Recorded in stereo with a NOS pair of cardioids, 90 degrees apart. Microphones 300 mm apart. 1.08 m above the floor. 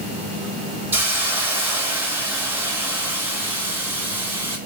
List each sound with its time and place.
0.9 s a hiss: 5° right, 6 m